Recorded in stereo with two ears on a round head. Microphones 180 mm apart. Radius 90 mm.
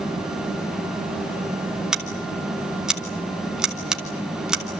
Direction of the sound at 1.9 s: 5° right (ahead or behind).